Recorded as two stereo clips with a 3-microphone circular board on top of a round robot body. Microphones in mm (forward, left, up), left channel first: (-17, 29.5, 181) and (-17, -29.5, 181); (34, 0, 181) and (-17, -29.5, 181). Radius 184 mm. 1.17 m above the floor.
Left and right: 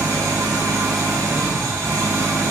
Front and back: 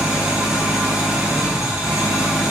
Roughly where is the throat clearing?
I don't hear throat clearing.